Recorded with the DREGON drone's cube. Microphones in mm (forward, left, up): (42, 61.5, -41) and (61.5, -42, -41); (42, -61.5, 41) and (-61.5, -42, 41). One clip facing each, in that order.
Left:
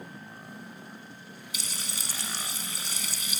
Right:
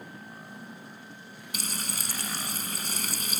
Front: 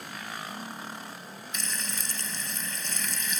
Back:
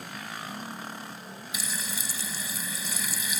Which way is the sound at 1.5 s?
110° right.